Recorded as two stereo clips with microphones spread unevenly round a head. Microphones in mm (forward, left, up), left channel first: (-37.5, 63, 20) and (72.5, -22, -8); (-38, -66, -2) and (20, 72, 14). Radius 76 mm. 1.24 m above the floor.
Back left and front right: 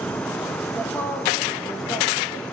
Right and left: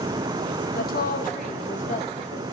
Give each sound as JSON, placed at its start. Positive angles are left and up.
{"t": 0.8, "sound": "a woman speaking", "azimuth_deg": -135, "distance_m": 1.9}